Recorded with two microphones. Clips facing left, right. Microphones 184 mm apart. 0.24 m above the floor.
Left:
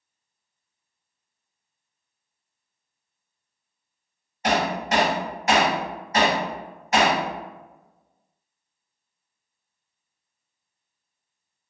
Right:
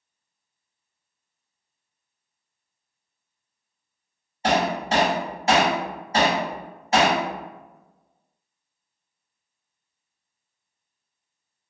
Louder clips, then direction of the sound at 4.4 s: Right 1 dB; 30° right (ahead or behind).